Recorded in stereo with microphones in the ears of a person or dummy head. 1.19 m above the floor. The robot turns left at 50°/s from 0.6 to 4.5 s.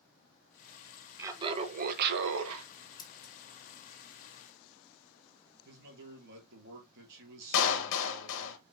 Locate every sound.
1.2 s laughter: 15° right, 0.9 m; by 2.6 s 85° right, 0.9 m
3.0 s scissors: 20° left (ahead or behind), 0.6 m; by 3.3 s 40° left (ahead or behind), 0.6 m
5.7 s a man speaking: 65° right (ahead or behind), 2.5 m
7.5 s a clap: 75° left (ahead or behind), 0.9 m